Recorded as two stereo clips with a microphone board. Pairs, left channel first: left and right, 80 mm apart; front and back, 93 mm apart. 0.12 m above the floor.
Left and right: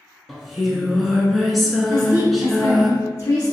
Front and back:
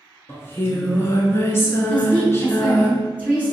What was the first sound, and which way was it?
Singing, straight ahead.